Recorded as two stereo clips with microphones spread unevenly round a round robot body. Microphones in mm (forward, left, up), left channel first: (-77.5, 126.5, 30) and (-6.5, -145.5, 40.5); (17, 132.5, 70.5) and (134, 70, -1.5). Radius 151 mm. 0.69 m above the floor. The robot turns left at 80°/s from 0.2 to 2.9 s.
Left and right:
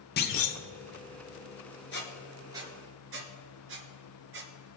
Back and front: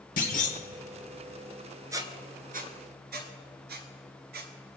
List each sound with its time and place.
0.2 s a clunk: 160° left, 0.9 m; by 0.6 s 130° left, 0.9 m
1.9 s a squeak: 55° left, 1.4 m; by 4.8 s 25° right, 1.4 m